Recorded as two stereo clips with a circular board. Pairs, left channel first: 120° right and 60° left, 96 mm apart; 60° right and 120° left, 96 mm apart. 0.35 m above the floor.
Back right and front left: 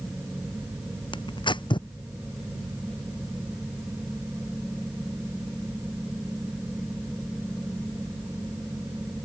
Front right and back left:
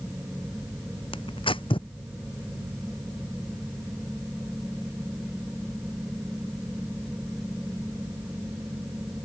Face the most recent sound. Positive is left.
turn(degrees=-85)